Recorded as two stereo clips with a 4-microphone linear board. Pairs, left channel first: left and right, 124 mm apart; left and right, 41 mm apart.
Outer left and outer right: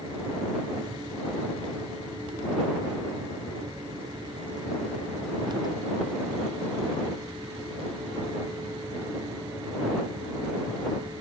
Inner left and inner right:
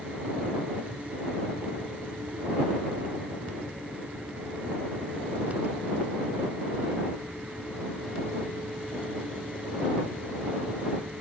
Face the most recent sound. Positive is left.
No sound to turn to.